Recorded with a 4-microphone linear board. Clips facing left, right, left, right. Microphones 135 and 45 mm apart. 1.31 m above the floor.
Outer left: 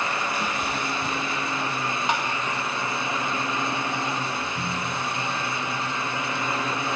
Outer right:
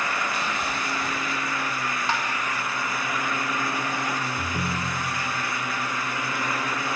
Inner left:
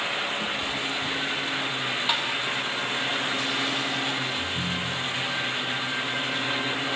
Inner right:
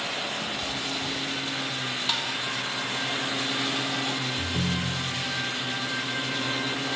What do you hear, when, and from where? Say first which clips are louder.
0.4 s a cat meowing: outer left 1 dB, inner left 3 dB; 20° left (ahead or behind), 3.5 m; by 1.6 s 35° left (ahead or behind), 5 m
2.1 s tapping: outer left 2 dB, inner left 3 dB; 20° left (ahead or behind), 3 m
4.4 s a ringtone: outer right 1 dB, even; 70° right (ahead or behind), 1.8 m